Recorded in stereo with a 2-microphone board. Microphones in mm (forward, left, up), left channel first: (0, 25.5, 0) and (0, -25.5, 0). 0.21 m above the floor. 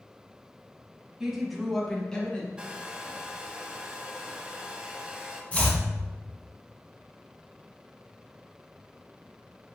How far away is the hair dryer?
About 0.7 m.